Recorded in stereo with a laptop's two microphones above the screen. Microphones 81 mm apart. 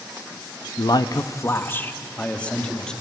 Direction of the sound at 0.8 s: 65° left (ahead or behind).